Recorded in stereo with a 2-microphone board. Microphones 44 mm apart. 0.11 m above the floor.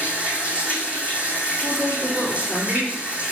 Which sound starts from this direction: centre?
A woman speaking, at 1.6 s.